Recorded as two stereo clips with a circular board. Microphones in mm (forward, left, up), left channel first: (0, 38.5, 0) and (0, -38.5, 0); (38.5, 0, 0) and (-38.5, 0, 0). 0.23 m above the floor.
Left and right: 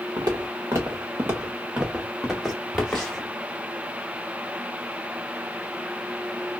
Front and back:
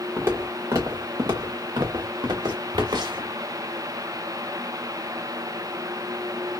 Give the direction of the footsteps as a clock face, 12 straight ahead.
4 o'clock.